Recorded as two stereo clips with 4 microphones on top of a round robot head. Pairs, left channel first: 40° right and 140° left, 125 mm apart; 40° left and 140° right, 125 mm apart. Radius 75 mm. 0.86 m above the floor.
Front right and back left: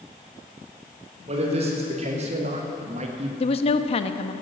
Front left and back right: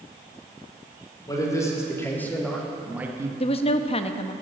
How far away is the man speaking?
About 3.5 m.